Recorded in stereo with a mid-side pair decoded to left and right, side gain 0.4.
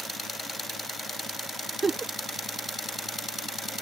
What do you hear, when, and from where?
1.8 s a giggle: 35° right